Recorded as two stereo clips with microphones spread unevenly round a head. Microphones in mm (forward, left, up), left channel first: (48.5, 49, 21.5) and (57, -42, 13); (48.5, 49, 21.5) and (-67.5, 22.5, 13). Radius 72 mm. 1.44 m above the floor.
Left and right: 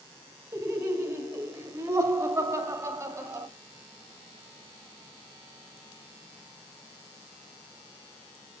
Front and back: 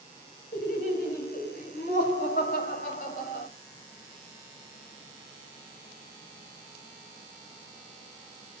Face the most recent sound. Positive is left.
turn(degrees=-25)